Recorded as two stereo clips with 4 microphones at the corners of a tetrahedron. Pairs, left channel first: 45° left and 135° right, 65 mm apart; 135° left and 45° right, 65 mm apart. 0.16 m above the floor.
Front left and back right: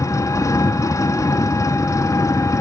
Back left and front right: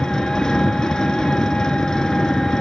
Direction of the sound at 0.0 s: 55° left.